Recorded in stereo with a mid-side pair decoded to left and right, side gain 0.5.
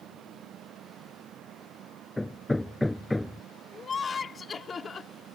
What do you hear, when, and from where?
0.0 s a machine running: 60° right
2.2 s hammering: 10° left
3.7 s laughter: 35° left